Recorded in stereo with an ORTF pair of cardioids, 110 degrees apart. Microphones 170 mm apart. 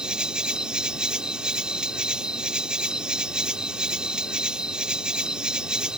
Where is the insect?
5° right.